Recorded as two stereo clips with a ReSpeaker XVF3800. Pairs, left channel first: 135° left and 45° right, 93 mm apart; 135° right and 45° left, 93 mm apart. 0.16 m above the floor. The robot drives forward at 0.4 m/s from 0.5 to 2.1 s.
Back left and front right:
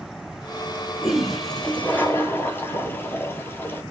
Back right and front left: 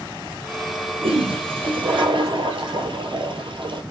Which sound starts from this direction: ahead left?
A toilet flushing, at 1.0 s.